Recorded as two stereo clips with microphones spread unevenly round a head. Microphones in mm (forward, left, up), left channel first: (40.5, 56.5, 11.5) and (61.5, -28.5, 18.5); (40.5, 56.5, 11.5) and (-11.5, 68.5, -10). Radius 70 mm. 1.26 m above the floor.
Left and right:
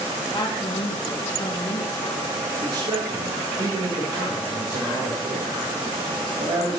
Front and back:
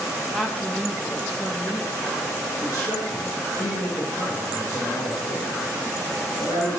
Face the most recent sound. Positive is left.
turn(degrees=-65)